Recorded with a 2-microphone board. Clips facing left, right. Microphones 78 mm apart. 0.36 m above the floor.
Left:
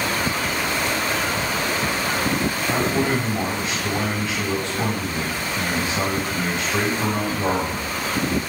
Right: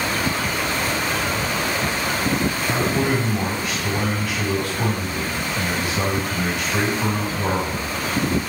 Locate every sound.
2.7 s a man speaking: 25° left (ahead or behind), 1.7 m